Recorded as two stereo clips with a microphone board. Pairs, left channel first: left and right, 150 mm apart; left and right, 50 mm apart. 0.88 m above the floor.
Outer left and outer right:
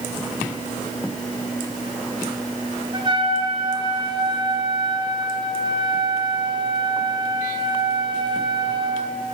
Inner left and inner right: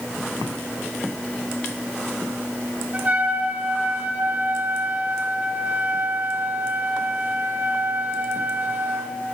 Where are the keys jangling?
No keys jangling in this recording.